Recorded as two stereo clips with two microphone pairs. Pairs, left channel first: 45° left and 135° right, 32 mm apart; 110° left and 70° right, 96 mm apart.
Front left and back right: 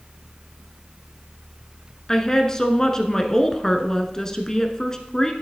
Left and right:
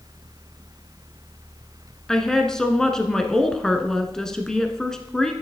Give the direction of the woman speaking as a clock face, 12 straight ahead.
11 o'clock.